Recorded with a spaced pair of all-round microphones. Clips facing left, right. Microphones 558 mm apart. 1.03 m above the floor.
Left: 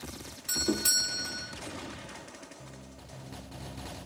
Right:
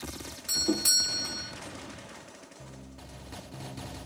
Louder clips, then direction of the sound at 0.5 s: Right 1 dB; 10° right (ahead or behind).